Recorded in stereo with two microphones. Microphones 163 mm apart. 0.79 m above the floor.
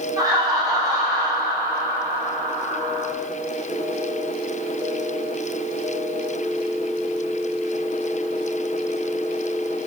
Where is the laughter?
20° right (ahead or behind), 1.0 m.